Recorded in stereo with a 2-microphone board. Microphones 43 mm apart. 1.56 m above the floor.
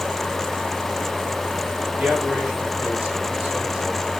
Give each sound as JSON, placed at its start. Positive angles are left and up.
{"t": 2.0, "sound": "a man speaking", "side_deg": -50, "distance_m": 3.5}